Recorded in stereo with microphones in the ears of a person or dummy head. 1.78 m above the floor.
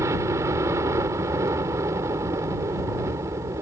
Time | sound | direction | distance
0.0 | a helicopter | 15° right (ahead or behind) | ?